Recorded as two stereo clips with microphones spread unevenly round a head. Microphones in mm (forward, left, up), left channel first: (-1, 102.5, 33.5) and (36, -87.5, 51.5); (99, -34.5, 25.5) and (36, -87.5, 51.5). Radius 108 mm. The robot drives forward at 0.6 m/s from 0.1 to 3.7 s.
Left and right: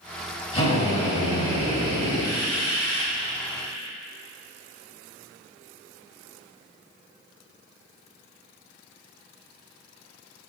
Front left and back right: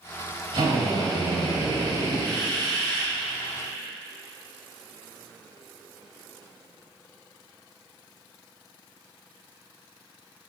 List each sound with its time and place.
0.5 s a drill: 165° left, 3 m; by 3.1 s 170° left, 4.5 m